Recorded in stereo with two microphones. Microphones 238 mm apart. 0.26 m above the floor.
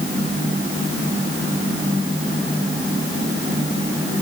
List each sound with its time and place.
Only background noise.